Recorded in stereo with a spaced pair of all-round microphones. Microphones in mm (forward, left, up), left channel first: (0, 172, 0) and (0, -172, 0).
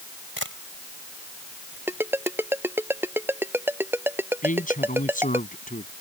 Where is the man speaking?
25° left (ahead or behind).